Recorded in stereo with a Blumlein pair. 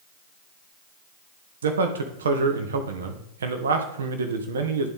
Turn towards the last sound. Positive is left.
turn(degrees=-65)